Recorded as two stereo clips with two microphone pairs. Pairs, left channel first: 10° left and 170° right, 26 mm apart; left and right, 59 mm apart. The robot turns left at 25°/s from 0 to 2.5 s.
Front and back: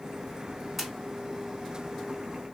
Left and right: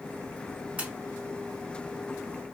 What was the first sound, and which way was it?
A splash, 80° right.